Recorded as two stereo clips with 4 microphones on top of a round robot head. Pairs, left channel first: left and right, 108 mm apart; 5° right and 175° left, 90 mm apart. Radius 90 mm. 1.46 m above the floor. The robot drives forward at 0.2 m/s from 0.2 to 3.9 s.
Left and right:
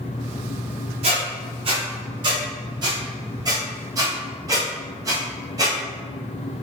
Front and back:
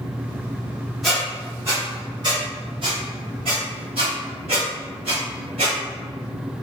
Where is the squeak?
100° right, 0.6 m; by 5.8 s 145° right, 0.9 m.